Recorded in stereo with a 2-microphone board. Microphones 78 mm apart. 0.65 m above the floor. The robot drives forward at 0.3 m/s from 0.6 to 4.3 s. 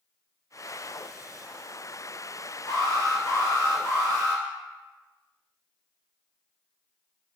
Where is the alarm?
40° left (ahead or behind), 1.6 m; by 4.4 s 30° left (ahead or behind), 2 m.